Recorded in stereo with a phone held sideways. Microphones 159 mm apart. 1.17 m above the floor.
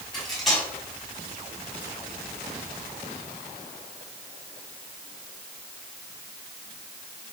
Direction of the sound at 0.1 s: Centre (ahead or behind).